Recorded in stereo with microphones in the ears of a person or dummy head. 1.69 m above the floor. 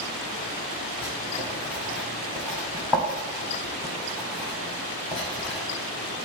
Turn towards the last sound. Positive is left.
turn(degrees=5)  # may be behind; listen again after turning